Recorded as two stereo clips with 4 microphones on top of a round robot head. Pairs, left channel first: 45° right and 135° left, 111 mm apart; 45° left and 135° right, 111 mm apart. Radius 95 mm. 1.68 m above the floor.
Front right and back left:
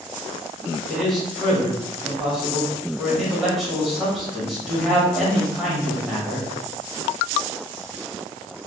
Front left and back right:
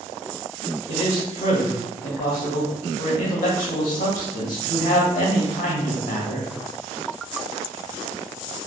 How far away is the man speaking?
About 1.4 m.